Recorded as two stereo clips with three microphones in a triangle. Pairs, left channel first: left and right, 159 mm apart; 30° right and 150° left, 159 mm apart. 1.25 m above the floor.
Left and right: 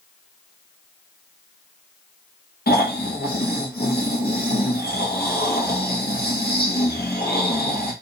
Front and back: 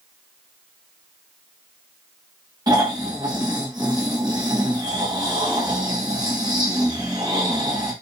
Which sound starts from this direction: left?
Snoring, at 2.7 s.